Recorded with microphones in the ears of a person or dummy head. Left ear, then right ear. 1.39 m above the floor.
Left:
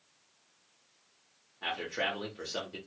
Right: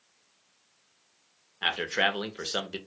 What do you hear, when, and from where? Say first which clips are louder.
1.6 s a man speaking: right 7 dB; 50° right (ahead or behind), 0.6 m